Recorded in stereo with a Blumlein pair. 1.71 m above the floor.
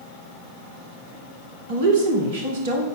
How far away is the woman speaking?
About 2.5 m.